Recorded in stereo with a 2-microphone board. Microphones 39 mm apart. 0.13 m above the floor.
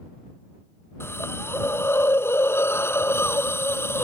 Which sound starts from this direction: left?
A hiss, at 1.0 s.